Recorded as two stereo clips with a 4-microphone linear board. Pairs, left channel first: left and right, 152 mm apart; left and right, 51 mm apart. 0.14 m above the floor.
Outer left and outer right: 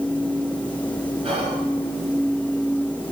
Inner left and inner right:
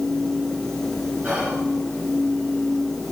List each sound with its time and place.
1.2 s whispering: 40° right (ahead or behind), 1.6 m